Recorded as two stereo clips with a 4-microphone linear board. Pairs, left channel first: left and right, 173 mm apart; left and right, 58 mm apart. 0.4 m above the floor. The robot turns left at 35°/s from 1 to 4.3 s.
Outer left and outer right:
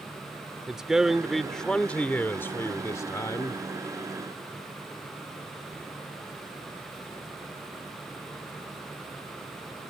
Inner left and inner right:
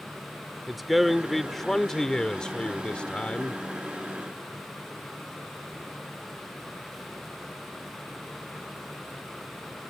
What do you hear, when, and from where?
0.7 s a man speaking: 5° right (ahead or behind); by 3.6 s 20° left (ahead or behind)